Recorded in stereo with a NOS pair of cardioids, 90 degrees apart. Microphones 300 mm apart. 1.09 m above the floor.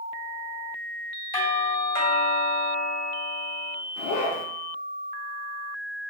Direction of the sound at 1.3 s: 15° left.